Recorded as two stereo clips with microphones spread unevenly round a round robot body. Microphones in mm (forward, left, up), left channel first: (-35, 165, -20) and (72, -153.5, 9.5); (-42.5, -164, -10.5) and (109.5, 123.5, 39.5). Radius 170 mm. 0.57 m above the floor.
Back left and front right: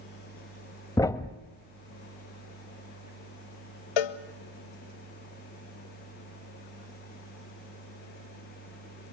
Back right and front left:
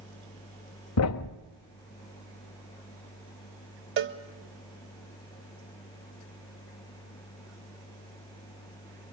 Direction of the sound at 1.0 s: 170° right.